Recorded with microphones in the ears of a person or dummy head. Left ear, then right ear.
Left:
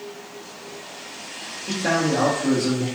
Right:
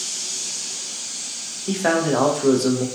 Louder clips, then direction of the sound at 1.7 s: Right 2 dB; 55° right (ahead or behind).